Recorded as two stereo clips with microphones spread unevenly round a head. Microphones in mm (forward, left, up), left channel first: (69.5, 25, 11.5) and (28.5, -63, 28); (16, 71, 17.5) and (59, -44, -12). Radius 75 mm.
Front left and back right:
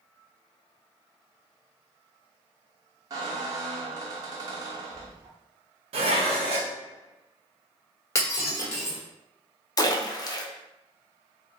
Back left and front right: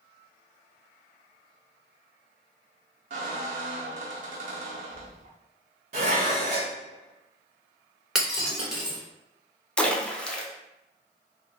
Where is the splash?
25° left, 0.6 m.